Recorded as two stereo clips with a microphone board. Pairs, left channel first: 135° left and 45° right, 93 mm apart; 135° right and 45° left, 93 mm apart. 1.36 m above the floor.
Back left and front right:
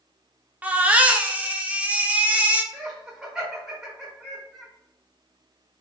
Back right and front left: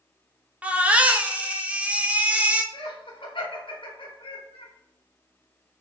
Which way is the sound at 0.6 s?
Straight ahead.